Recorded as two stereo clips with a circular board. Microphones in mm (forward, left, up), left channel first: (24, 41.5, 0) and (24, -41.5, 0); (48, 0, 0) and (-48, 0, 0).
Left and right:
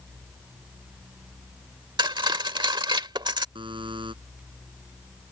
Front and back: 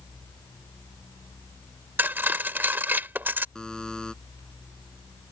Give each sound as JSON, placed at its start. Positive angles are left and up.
{"t": 2.0, "sound": "cutlery clinking", "azimuth_deg": -110}
{"t": 3.5, "sound": "a buzzer", "azimuth_deg": -85}